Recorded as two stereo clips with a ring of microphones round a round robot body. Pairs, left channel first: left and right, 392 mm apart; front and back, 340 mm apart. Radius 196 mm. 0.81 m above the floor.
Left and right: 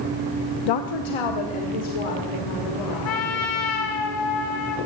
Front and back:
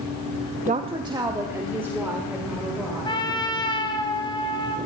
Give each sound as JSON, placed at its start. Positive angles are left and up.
{"t": 0.7, "sound": "a woman speaking", "azimuth_deg": 115, "distance_m": 0.6}
{"t": 3.0, "sound": "a trumpet", "azimuth_deg": 75, "distance_m": 1.6}